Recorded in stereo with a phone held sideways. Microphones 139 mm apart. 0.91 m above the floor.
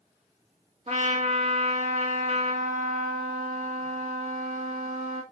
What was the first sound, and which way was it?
A trumpet, 50° right (ahead or behind).